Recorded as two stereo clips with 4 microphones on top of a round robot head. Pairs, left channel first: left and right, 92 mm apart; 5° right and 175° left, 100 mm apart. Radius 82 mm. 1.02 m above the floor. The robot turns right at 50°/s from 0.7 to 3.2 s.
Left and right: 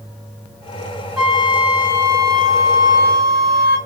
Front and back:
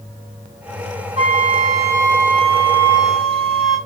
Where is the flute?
175° right, 0.8 m; by 3.8 s 75° right, 0.8 m.